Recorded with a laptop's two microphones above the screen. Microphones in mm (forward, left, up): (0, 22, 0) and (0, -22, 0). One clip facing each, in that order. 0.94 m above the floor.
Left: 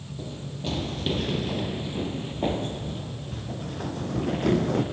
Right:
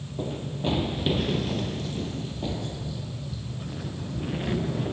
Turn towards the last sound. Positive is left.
turn(degrees=70)  # may be behind; listen again after turning